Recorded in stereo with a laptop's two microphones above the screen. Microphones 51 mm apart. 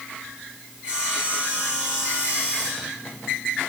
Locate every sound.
0.8 s sawing: 20° right (ahead or behind), 5.5 m